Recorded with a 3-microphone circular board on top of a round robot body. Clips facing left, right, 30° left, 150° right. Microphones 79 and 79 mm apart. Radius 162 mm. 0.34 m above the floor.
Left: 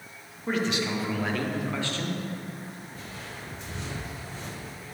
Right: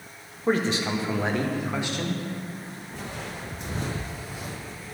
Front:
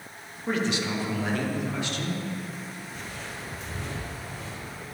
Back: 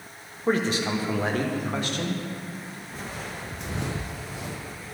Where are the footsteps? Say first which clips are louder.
Right 5 dB, back 2 dB; 95° right, 1.4 m; by 4.8 s 170° left, 1.0 m.